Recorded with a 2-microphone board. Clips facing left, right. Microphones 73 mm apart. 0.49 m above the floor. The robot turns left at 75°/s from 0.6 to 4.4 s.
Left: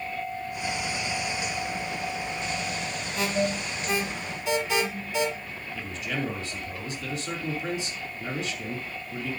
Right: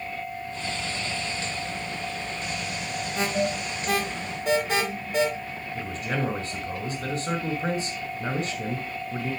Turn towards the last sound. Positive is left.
turn(degrees=-50)  # may be behind; listen again after turning